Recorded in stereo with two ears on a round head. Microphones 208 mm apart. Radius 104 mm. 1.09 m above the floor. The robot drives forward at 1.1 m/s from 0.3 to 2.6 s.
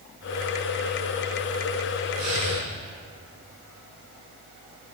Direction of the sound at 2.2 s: 75° right (ahead or behind).